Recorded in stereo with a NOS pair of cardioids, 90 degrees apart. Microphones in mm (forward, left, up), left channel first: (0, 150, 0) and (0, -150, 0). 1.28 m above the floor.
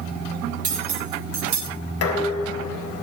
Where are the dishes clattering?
55° left, 4 m.